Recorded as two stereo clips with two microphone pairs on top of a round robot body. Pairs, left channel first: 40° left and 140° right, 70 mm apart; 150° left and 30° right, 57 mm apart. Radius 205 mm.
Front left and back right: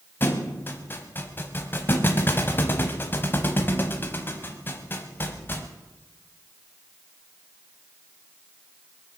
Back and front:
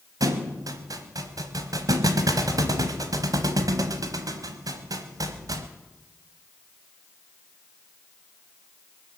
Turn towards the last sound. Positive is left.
turn(degrees=-20)